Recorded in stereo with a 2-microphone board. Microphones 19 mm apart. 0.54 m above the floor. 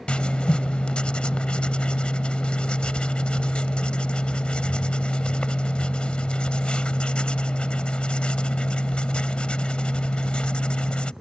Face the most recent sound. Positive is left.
turn(degrees=80)